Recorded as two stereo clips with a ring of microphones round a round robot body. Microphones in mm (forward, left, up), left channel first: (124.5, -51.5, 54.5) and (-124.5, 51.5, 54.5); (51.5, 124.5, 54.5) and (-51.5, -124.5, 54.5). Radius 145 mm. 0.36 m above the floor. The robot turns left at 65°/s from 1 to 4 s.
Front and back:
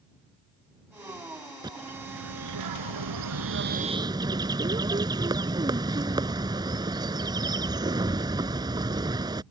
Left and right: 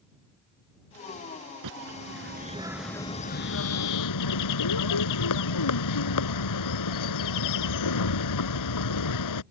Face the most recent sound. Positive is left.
turn(degrees=80)